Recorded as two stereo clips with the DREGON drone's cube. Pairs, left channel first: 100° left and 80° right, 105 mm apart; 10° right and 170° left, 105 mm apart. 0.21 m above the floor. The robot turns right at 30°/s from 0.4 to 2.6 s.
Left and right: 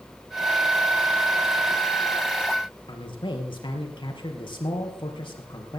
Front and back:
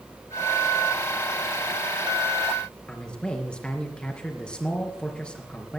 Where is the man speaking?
70° left, 3.5 m.